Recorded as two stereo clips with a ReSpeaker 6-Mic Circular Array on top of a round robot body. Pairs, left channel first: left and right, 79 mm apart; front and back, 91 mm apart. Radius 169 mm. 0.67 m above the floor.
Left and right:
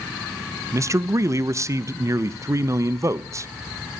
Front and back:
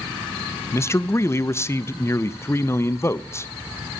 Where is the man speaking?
50° right, 0.6 m.